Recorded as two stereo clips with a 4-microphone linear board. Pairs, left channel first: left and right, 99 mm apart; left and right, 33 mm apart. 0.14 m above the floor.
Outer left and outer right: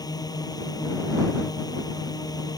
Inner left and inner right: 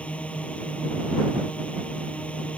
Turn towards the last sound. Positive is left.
turn(degrees=40)  # may be behind; listen again after turning